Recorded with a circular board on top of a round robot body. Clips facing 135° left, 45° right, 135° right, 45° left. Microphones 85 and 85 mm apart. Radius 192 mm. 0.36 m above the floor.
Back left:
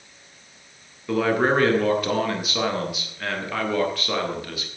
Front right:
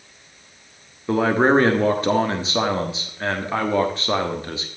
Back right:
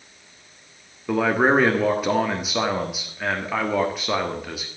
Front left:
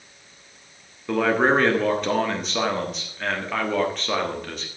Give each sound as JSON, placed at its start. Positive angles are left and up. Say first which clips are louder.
{"t": 1.1, "sound": "a man speaking", "louder": "front right 3 dB, back right 1 dB", "azimuth_deg": -60, "distance_m": 1.6}